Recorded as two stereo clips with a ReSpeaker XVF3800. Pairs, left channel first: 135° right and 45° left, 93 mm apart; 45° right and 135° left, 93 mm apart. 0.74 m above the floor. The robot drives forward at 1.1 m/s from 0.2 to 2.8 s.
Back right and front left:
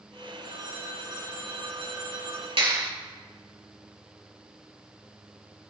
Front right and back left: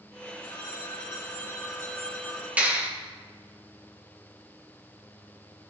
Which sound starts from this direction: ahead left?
A clap, at 2.6 s.